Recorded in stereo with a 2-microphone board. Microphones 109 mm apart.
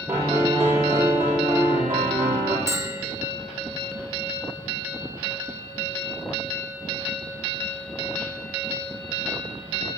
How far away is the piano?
About 6 m.